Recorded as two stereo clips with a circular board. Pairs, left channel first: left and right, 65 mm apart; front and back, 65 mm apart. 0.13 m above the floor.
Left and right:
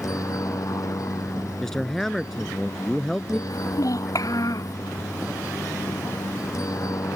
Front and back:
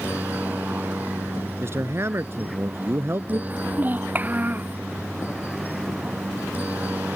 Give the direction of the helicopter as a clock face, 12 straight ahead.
8 o'clock.